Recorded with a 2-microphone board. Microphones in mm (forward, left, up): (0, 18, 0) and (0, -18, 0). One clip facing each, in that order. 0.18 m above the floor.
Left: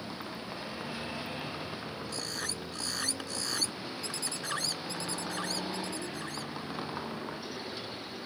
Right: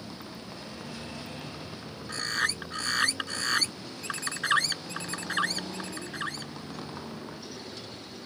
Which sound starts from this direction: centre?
A vehicle, at 0.0 s.